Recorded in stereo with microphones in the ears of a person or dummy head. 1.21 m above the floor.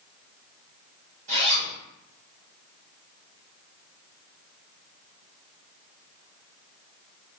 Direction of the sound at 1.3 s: 30° right (ahead or behind).